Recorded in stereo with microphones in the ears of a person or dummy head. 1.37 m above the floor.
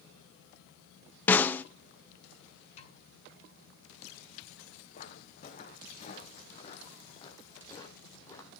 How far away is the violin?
I don't hear a violin.